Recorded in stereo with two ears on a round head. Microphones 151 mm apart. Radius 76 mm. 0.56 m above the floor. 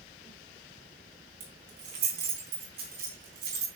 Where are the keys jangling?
55° right (ahead or behind), 4 m.